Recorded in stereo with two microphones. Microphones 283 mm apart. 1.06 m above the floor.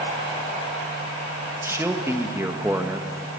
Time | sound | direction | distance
1.6 | a man speaking | 10° right (ahead or behind) | 1.4 m